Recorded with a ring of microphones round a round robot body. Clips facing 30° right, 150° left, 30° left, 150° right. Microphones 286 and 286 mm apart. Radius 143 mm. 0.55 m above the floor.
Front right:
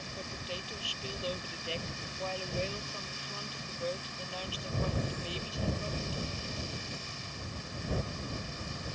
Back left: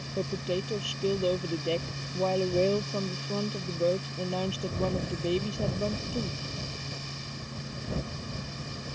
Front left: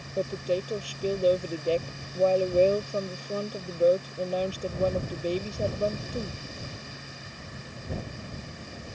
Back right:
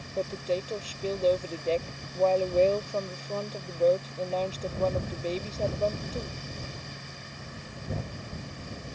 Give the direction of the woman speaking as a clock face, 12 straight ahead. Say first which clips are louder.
Back left 14 dB, front left 2 dB; 8 o'clock.